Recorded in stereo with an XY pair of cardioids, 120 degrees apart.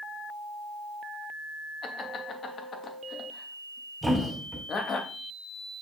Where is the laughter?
40° left, 2.5 m.